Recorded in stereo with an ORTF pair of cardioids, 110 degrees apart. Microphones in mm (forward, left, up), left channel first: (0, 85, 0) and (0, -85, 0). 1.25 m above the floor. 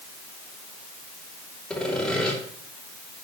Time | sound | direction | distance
1.7 | sawing | 5° left | 3 m